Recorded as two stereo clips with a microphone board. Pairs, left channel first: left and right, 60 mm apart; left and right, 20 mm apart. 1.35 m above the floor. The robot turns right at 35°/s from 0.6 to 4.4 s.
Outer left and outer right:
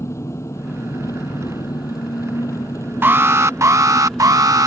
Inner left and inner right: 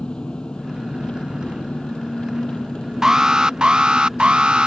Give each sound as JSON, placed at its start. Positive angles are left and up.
{"t": 0.0, "sound": "an engine running", "azimuth_deg": 50}
{"t": 3.0, "sound": "an alarm", "azimuth_deg": -140}